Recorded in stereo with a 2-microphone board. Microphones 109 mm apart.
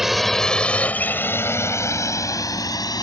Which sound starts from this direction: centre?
A drone, at 0.0 s.